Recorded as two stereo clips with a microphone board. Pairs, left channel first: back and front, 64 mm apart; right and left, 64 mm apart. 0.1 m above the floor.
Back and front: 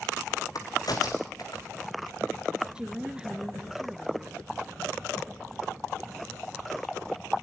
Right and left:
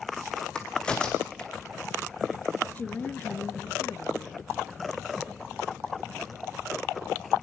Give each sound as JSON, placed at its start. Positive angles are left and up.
{"t": 0.6, "sound": "a crack", "azimuth_deg": -165, "distance_m": 3.5}
{"t": 2.8, "sound": "a woman speaking", "azimuth_deg": -65, "distance_m": 1.6}